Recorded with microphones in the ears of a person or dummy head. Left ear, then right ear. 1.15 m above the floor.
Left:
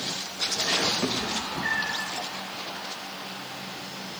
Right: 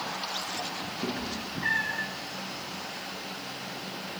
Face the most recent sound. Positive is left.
turn(degrees=-40)  # may be behind; listen again after turning